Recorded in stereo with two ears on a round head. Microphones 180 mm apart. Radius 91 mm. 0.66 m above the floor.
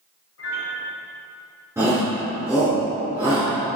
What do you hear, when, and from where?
0.4 s a piano: 60° left (ahead or behind), 1.9 m
1.8 s a shout: 10° right (ahead or behind), 1.7 m